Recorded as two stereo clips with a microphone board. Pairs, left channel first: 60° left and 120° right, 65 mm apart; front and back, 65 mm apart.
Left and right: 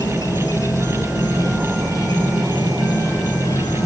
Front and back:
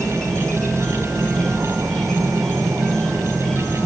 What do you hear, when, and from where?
0.0 s an insect: 80° left, 0.8 m